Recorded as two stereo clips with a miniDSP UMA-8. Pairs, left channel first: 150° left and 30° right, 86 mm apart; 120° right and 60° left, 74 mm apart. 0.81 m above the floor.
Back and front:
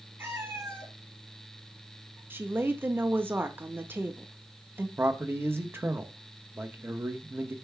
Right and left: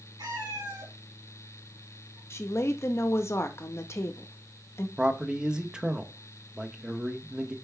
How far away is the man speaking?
About 1.1 m.